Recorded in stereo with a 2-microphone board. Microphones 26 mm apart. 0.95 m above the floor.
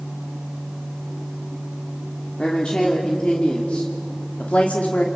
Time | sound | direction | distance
2.4 | a woman speaking | 40° left (ahead or behind) | 2.5 m